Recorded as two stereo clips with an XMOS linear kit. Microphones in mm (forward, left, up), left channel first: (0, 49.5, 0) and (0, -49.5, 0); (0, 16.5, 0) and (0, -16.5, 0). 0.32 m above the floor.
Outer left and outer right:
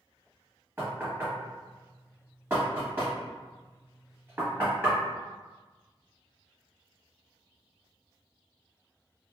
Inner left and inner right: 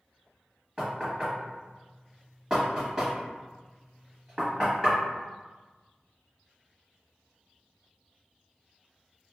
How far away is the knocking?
About 1.3 m.